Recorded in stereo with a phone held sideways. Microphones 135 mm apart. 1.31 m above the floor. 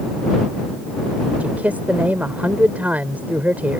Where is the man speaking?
10° right (ahead or behind).